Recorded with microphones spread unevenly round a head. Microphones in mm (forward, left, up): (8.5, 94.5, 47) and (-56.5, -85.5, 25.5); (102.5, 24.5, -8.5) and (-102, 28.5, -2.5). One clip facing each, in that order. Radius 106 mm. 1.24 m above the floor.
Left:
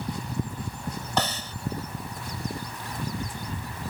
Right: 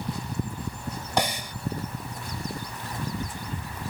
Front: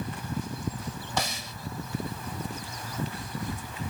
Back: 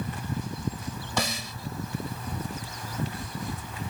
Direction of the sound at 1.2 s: 170° left.